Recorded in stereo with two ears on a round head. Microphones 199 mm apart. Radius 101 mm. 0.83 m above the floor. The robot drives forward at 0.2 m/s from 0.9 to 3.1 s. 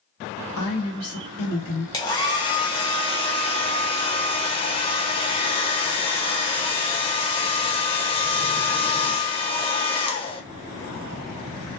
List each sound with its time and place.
0.6 s a woman speaking: 75° left (ahead or behind), 1.3 m; by 1.8 s 70° left (ahead or behind), 1.3 m
1.9 s a hair dryer: 15° left (ahead or behind), 0.6 m; by 10.4 s 25° left (ahead or behind), 0.5 m